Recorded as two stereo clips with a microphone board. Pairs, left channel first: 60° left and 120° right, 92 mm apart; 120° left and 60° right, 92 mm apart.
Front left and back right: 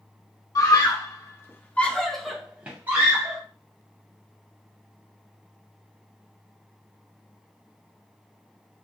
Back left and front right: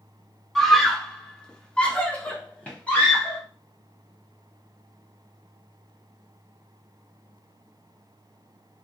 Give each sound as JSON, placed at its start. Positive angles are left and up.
{"t": 0.6, "sound": "a scream", "azimuth_deg": 35, "distance_m": 1.0}